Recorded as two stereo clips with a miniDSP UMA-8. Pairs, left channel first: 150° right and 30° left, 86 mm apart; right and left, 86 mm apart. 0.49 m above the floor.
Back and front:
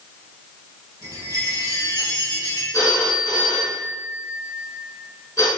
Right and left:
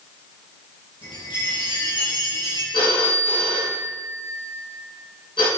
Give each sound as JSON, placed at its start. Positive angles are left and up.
{"t": 1.0, "sound": "a chime", "azimuth_deg": -105, "distance_m": 6.0}
{"t": 2.7, "sound": "a phone ringing", "azimuth_deg": -100, "distance_m": 4.5}